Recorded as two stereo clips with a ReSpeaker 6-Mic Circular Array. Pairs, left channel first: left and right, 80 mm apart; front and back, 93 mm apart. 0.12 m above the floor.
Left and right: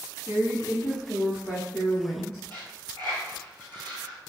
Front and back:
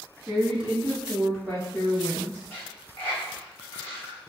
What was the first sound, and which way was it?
A woman speaking, 125° right.